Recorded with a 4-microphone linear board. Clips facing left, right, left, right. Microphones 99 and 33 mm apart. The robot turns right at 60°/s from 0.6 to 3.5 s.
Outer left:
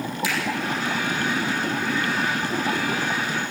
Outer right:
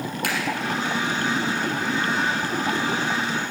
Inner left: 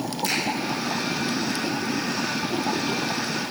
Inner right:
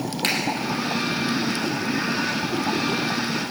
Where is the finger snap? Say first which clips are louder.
Even, inner right 3 dB; 60° right (ahead or behind), 4.5 m.